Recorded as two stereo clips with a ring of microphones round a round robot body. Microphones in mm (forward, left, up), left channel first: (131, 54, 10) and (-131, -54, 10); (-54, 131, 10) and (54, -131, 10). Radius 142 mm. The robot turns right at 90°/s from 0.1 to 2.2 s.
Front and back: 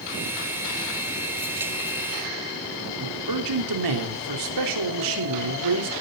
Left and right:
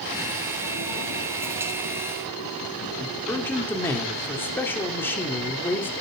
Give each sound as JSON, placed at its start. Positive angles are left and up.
{"t": 3.0, "sound": "a man speaking", "azimuth_deg": -165, "distance_m": 3.5}